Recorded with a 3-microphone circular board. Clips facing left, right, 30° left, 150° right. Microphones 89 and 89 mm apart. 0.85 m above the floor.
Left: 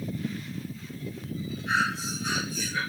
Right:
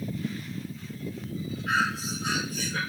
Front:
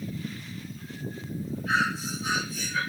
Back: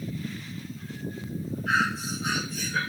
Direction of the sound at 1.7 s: 125° right.